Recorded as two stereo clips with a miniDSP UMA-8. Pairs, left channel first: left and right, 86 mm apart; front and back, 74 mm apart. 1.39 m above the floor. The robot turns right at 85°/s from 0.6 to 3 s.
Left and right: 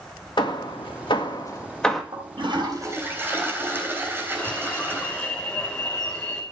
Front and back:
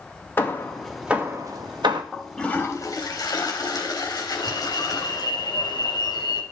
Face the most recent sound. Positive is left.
turn(degrees=10)